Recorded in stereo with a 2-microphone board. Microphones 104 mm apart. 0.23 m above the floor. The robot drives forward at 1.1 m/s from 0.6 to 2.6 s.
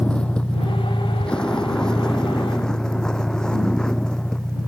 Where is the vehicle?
10° left (ahead or behind); by 4.7 s 5° left (ahead or behind).